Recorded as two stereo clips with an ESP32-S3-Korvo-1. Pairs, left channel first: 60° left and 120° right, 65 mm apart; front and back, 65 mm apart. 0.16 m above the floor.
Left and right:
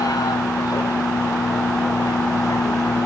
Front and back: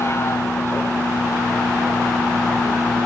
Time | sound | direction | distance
0.0 | a vehicle | 45° left | ?